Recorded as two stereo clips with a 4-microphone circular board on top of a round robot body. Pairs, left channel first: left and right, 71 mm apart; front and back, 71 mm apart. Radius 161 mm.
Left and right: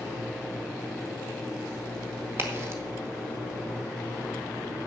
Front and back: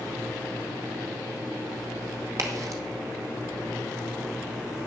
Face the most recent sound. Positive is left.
turn(degrees=-140)